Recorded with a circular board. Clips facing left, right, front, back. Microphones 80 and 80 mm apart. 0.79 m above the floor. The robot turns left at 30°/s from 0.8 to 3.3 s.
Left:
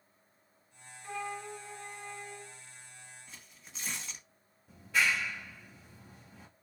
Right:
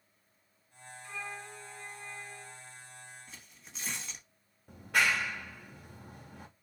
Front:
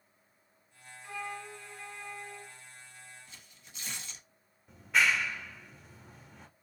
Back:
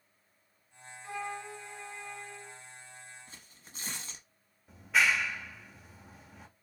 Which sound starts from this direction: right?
A clap, at 4.7 s.